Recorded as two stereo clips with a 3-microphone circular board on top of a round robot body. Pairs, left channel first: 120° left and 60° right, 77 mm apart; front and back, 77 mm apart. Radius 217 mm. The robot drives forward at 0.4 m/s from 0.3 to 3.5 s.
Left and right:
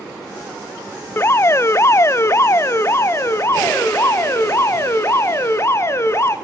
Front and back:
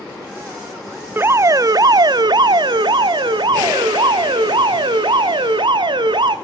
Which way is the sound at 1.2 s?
145° left.